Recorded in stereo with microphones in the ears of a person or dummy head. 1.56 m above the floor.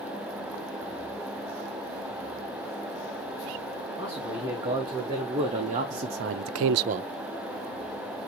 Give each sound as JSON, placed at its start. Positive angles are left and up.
{"t": 4.0, "sound": "a man speaking", "side_deg": -25, "distance_m": 3.0}